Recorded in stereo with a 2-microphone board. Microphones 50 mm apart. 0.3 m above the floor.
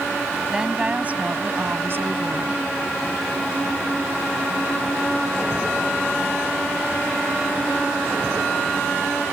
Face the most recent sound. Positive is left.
turn(degrees=-60)  # may be behind; listen again after turning